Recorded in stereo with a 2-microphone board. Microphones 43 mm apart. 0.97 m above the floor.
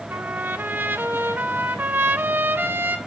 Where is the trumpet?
50° right (ahead or behind), 0.6 m.